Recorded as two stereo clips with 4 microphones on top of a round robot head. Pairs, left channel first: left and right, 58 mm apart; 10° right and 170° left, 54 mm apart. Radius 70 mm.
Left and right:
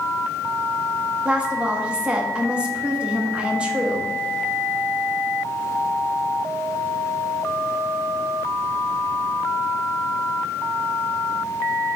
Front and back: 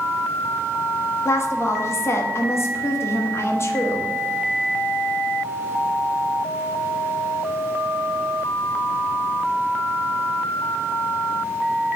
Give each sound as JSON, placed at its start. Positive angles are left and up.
{"t": 1.2, "sound": "a woman speaking", "azimuth_deg": -20, "distance_m": 1.3}